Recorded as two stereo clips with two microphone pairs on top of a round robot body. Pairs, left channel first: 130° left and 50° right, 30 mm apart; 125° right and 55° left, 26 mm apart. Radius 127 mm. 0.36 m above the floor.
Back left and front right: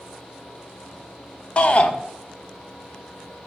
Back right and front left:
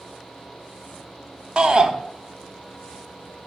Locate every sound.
1.6 s a shout: 100° left, 1.0 m